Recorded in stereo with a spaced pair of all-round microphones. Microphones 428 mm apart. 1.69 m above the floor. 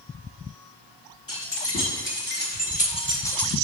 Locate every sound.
1.3 s keys jangling: 30° left (ahead or behind), 1.8 m; by 3.5 s centre (ahead or behind), 0.8 m